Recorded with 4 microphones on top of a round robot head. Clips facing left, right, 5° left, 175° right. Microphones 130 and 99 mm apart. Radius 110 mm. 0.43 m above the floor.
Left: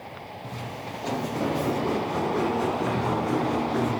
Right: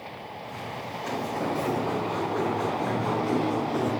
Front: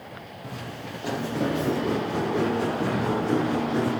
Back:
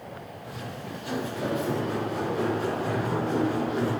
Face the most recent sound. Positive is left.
turn(degrees=-10)